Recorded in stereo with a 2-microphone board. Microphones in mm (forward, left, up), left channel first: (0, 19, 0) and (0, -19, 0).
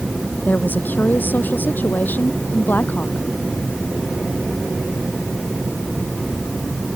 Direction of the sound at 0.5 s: 55° left (ahead or behind).